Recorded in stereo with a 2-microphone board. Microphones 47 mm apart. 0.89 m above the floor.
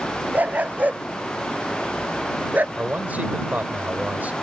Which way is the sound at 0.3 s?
35° right (ahead or behind).